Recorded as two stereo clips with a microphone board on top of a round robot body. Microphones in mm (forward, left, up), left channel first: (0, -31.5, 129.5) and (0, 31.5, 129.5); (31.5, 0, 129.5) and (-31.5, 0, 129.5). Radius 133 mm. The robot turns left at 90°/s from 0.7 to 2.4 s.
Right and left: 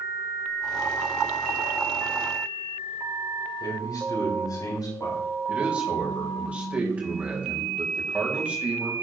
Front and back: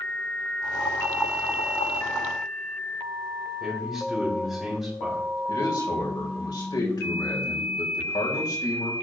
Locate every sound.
3.6 s a man speaking: 95° right, 5 m
5.5 s a man speaking: 20° left, 4 m